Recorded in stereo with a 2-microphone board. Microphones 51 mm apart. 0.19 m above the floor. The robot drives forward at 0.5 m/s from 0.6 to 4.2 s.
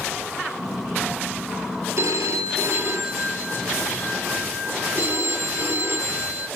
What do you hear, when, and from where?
2.0 s a phone ringing: 70° right (ahead or behind), 2 m; by 6.5 s 55° right (ahead or behind), 2.5 m